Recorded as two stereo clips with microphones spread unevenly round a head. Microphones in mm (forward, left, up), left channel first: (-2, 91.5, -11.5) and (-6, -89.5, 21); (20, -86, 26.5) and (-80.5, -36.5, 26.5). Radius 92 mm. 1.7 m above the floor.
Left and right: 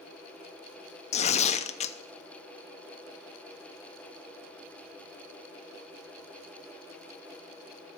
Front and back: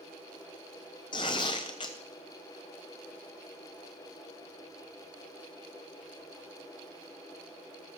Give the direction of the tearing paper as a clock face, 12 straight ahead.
11 o'clock.